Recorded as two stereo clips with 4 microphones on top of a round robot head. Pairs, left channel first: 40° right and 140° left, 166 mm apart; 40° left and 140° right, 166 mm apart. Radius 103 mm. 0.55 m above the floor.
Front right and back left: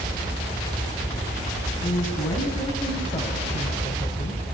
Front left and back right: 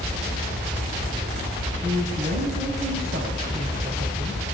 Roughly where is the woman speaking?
Right.